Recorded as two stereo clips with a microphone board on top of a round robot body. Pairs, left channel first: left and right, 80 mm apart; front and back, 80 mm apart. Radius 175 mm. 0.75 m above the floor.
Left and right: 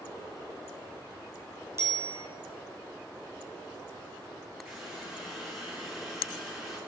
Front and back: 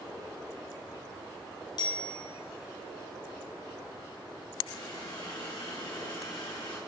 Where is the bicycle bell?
30° right, 3.5 m.